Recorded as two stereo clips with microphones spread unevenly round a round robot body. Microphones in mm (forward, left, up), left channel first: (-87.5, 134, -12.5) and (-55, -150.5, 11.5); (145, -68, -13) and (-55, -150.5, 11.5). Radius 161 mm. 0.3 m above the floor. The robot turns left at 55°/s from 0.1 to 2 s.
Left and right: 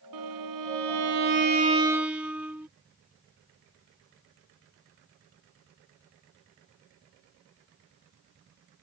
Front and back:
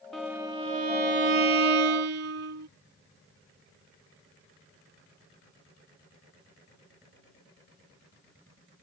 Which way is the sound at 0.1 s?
65° right.